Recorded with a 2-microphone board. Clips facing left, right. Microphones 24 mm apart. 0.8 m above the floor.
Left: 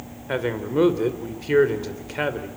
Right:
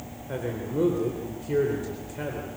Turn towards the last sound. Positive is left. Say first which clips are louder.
# left 6 dB
turn(degrees=60)  # may be behind; listen again after turning